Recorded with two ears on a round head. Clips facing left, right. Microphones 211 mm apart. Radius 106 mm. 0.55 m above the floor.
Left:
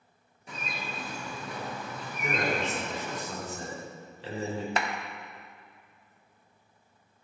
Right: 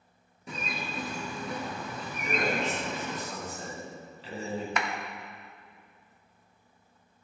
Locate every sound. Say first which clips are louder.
0.5 s a bird: right 2 dB; 75° right (ahead or behind), 3 m
2.2 s a man speaking: even; 35° left (ahead or behind), 4.5 m
4.8 s a clap: left 1 dB; 25° left (ahead or behind), 1.0 m